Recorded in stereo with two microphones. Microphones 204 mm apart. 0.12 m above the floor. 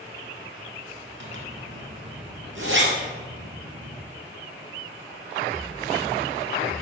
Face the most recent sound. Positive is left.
turn(degrees=-60)  # may be behind; listen again after turning